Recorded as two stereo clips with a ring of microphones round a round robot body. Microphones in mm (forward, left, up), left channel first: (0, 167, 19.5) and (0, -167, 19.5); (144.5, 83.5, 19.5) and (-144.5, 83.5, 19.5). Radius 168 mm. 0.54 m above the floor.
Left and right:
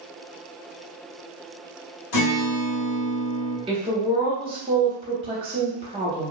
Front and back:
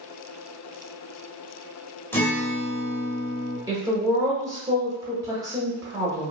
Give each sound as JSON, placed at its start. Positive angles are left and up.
{"t": 2.1, "sound": "a guitar", "azimuth_deg": 85, "distance_m": 1.4}
{"t": 3.7, "sound": "a woman speaking", "azimuth_deg": -125, "distance_m": 0.9}